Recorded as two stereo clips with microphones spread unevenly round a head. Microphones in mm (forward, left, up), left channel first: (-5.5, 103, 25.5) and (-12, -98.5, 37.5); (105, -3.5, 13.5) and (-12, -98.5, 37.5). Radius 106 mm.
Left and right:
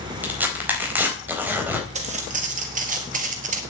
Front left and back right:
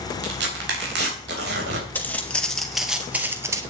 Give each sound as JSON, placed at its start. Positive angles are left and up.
{"t": 0.2, "sound": "tearing paper", "azimuth_deg": -170, "distance_m": 3.5}
{"t": 1.9, "sound": "footsteps", "azimuth_deg": -45, "distance_m": 2.5}